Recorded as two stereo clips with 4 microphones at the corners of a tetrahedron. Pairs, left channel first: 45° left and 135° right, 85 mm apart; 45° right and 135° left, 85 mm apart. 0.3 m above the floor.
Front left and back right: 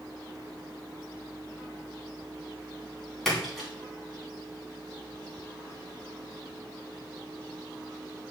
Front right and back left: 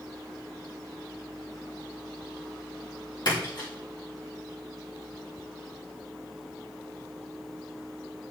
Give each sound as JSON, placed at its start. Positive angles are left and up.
{"t": 3.2, "sound": "a splash", "azimuth_deg": -40, "distance_m": 3.5}